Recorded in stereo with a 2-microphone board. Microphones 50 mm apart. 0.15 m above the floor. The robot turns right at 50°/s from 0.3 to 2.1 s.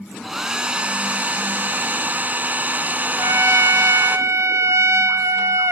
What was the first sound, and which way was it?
A hair dryer, 165° right.